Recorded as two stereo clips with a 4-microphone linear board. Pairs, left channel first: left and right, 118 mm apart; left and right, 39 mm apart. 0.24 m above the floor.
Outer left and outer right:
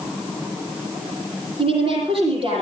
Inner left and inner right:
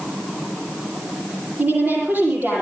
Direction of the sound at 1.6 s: 50° right (ahead or behind).